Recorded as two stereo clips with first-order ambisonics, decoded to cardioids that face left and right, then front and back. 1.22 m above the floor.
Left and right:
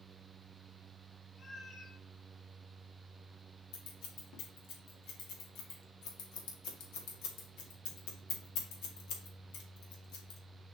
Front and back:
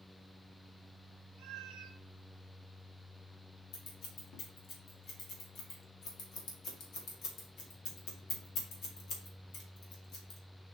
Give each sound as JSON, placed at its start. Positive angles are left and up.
{"t": 1.4, "sound": "a cat meowing", "azimuth_deg": 160, "distance_m": 0.9}
{"t": 3.7, "sound": "scissors", "azimuth_deg": 55, "distance_m": 1.8}